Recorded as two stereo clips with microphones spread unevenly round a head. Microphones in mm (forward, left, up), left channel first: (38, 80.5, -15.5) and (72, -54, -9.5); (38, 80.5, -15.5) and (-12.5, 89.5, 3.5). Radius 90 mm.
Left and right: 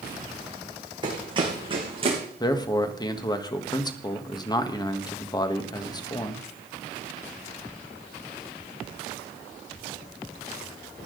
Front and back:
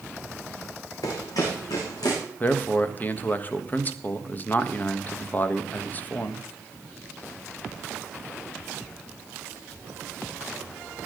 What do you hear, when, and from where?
1.0 s running footsteps: 20° right, 5 m; by 2.2 s 30° right, 5.5 m
2.4 s a man speaking: 45° left, 1.5 m